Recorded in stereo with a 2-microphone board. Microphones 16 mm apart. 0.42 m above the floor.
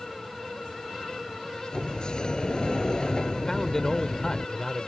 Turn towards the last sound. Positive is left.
turn(degrees=30)  # may be behind; listen again after turning